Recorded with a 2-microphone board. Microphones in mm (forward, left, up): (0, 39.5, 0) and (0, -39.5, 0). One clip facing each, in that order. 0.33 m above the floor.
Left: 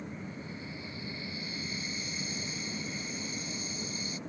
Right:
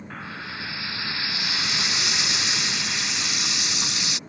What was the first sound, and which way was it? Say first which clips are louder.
Frying: right 7 dB; 85° right.